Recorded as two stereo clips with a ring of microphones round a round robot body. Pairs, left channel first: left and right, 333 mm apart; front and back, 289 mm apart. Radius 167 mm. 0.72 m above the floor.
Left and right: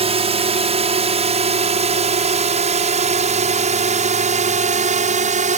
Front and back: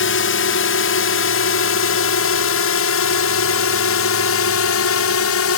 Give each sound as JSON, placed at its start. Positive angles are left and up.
{"t": 0.0, "sound": "a drone", "azimuth_deg": -25}